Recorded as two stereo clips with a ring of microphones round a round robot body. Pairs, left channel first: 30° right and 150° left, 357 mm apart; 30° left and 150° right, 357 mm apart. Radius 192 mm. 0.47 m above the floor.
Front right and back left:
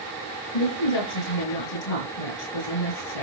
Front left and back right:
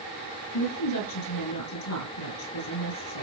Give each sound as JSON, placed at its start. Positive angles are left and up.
{"t": 0.5, "sound": "a woman speaking", "azimuth_deg": -15, "distance_m": 8.0}